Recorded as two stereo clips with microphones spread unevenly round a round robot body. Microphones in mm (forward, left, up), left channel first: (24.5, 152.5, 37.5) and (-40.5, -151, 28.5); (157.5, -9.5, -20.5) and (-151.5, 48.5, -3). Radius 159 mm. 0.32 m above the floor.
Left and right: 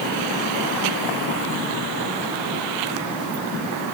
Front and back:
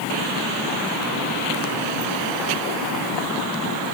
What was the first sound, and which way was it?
Only background noise.